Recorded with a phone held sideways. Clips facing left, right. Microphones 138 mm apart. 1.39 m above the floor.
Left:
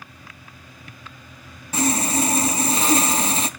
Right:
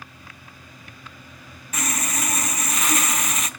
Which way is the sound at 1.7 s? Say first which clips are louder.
Left 8 dB; 30° left (ahead or behind).